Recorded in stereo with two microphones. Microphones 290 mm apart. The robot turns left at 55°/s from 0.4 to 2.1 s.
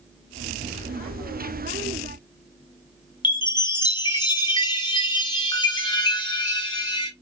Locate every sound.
3.2 s a chime: 15° left (ahead or behind), 0.7 m